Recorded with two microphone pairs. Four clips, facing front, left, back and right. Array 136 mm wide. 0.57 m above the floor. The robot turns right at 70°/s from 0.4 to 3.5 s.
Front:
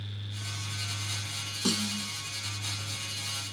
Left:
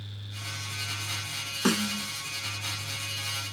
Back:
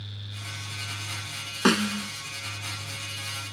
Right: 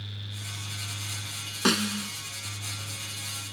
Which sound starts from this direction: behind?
A snare drum, at 1.6 s.